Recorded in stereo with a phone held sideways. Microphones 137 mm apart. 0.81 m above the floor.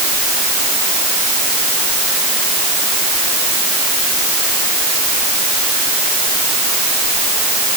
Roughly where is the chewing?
I don't hear chewing.